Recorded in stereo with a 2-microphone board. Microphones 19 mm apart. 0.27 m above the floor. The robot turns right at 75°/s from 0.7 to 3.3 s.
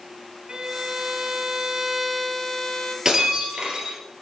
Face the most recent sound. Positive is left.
turn(degrees=-55)  # may be behind; listen again after turning